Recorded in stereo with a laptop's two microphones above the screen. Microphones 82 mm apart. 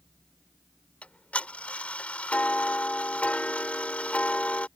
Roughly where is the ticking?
Centre.